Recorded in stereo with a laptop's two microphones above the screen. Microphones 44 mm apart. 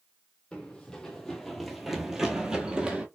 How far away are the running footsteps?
About 1.3 m.